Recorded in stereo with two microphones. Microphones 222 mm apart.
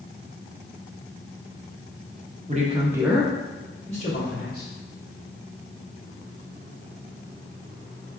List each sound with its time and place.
2.5 s a man speaking: 35° right (ahead or behind), 1.2 m; by 4.7 s 45° left (ahead or behind), 2 m